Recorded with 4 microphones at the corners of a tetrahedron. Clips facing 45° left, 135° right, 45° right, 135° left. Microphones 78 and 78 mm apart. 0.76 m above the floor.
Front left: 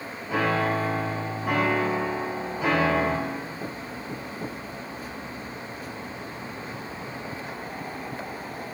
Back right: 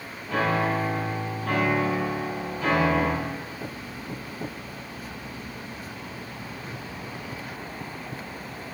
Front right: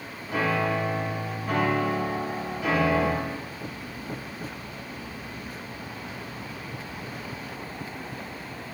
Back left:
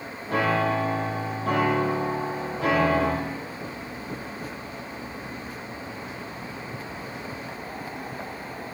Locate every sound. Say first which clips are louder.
0.3 s a piano: even, back left 2 dB; 120° left, 4 m